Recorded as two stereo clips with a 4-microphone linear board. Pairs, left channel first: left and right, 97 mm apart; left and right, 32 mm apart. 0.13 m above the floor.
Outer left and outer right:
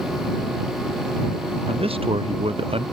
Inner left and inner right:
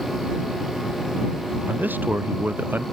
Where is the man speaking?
75° right (ahead or behind).